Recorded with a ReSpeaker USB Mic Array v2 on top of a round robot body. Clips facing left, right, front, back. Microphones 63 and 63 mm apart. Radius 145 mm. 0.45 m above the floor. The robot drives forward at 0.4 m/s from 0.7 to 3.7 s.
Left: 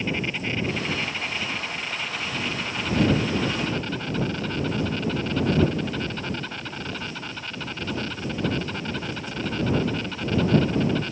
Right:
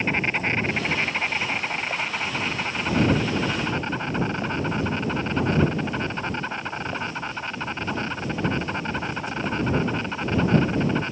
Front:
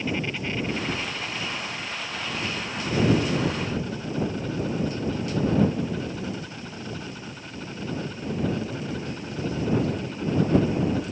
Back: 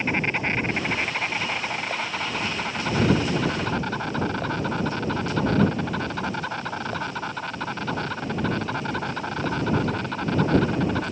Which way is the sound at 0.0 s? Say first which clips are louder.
Right 4 dB, back 4 dB; 135° right.